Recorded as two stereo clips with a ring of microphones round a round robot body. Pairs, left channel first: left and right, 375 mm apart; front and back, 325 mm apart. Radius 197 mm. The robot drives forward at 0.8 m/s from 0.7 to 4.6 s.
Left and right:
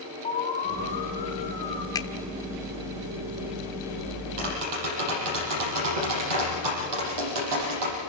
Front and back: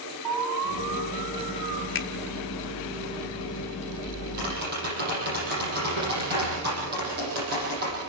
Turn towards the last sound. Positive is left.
turn(degrees=-115)